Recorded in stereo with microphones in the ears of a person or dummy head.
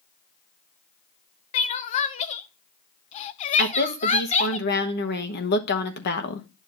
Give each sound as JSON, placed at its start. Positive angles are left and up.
{"t": 1.5, "sound": "crying", "side_deg": 25, "distance_m": 0.5}
{"t": 3.6, "sound": "a woman speaking", "side_deg": 50, "distance_m": 1.0}